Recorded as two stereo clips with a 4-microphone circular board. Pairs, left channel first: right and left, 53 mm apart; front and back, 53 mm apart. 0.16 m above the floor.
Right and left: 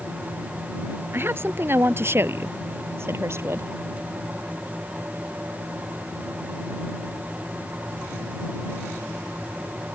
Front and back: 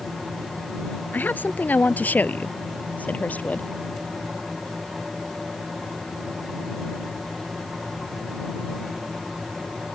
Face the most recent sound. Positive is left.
turn(degrees=60)